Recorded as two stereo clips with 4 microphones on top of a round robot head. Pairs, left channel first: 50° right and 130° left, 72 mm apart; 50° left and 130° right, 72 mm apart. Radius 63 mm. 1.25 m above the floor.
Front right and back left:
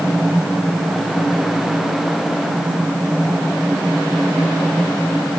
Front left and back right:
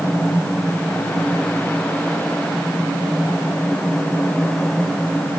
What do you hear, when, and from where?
Only background noise.